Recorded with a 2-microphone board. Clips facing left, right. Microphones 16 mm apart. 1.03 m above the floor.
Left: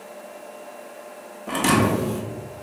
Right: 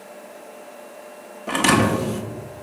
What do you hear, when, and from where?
1.5 s a thud: 25° right (ahead or behind), 0.5 m